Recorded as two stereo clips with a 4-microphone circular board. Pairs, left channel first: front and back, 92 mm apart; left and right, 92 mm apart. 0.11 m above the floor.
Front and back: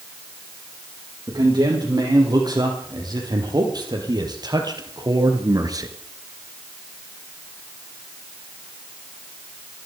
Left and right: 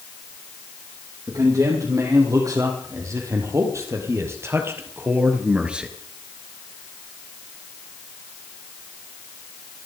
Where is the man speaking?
140° right, 6.5 m; by 5.9 s 170° right, 2.0 m.